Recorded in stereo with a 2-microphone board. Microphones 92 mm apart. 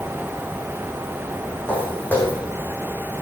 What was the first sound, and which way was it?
Footsteps, 20° left (ahead or behind).